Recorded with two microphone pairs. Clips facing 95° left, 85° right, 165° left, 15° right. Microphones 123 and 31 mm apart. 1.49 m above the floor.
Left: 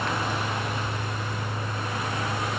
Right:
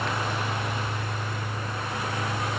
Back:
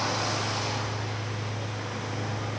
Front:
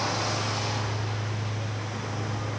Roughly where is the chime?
I don't hear a chime.